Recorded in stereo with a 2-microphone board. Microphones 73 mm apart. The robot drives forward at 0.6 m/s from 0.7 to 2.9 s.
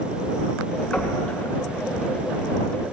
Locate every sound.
0.9 s knocking: 15° left (ahead or behind), 2.5 m; by 1.2 s 20° left (ahead or behind), 2 m